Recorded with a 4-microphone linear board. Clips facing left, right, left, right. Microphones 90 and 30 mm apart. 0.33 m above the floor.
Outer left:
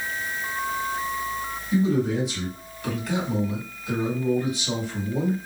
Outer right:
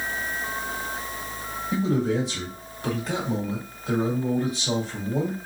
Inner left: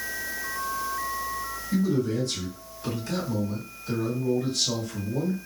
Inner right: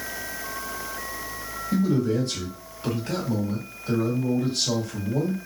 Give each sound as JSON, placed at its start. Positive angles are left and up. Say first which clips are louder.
{"t": 1.7, "sound": "a man speaking", "louder": "outer left 1 dB, inner right 2 dB", "side_deg": -35, "distance_m": 2.0}